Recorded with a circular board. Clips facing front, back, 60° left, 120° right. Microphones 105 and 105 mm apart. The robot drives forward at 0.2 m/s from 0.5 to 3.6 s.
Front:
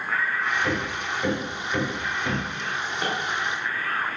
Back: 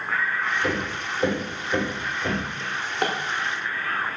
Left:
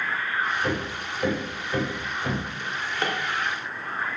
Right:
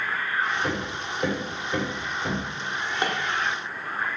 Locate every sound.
0.6 s hammering: straight behind, 1.9 m
2.6 s a drawer: 170° left, 0.6 m